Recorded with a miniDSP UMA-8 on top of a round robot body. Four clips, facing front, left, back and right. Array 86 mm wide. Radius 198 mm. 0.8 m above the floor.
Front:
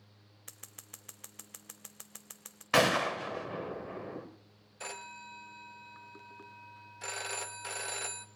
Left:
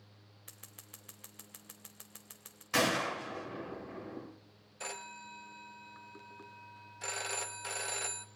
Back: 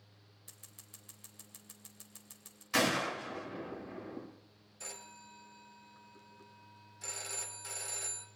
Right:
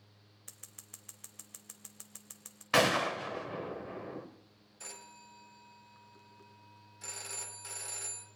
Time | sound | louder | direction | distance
0.5 | scissors | left 3 dB, front 8 dB | 5° left | 0.6 m
2.7 | a gunshot | right 3 dB, front 5 dB | 30° right | 1.3 m
4.8 | a phone ringing | left 8 dB, front 7 dB | 35° left | 0.9 m